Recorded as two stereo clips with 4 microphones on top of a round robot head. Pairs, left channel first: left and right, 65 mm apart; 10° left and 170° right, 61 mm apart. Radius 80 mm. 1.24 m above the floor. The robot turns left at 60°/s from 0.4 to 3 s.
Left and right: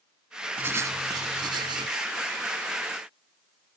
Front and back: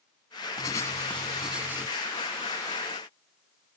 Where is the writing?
30° right; by 2.0 s 115° right.